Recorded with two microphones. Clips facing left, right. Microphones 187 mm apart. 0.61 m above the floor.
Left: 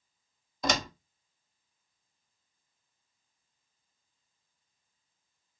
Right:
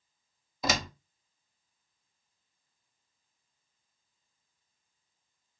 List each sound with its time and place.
0.6 s a door slam: 5° right (ahead or behind), 0.6 m